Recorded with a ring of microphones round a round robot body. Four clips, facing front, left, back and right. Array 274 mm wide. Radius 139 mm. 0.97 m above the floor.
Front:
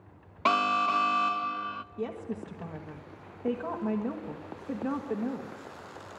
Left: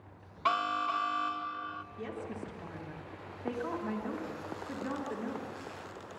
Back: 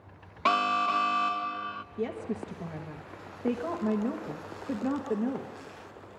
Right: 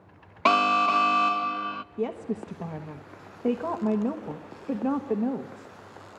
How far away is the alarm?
About 0.6 m.